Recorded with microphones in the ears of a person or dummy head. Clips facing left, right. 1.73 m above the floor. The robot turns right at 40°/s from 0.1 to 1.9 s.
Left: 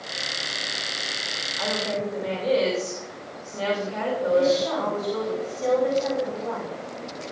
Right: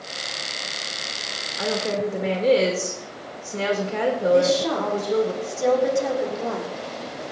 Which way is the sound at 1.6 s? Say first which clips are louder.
Right 3 dB; 55° right (ahead or behind).